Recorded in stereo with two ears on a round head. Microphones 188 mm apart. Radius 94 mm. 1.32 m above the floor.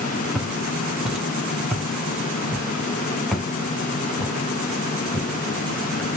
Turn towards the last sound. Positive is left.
turn(degrees=5)  # may be behind; listen again after turning